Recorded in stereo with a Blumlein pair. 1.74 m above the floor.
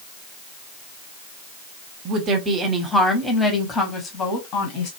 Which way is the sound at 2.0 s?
30° right.